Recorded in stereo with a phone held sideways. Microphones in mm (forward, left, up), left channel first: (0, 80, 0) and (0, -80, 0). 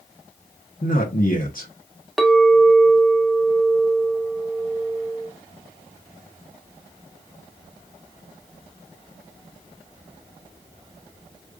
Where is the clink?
Centre (ahead or behind), 0.5 m.